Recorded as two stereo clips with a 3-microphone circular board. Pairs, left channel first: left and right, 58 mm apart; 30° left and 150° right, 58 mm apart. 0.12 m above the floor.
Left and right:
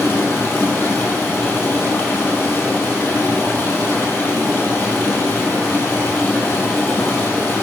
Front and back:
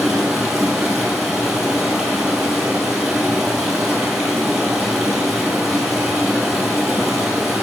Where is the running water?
125° left, 1.8 m.